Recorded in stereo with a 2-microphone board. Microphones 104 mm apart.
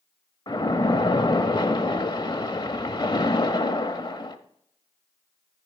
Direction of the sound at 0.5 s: 45° left (ahead or behind).